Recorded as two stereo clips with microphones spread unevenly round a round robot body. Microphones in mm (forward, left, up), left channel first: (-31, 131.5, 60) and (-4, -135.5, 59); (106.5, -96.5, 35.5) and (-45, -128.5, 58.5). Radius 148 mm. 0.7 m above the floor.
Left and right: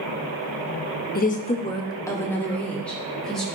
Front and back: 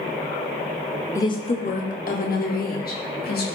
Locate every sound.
1.1 s a woman speaking: 60° left, 0.9 m; by 3.5 s 5° left, 3.5 m